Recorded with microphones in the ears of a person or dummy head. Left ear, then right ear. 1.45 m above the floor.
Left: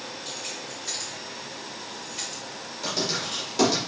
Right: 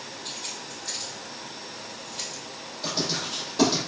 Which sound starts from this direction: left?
Writing, at 2.8 s.